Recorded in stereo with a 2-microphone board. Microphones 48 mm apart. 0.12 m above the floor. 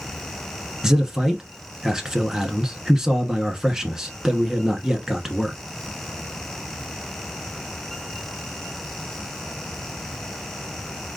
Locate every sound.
0.8 s a man speaking: 10° right (ahead or behind), 1.1 m